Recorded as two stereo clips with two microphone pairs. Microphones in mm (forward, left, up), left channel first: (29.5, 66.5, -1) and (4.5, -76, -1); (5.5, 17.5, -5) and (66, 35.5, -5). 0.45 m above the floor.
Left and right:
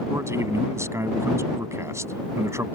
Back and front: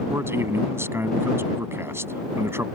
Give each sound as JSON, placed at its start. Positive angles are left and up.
{"t": 0.1, "sound": "a man speaking", "azimuth_deg": -30}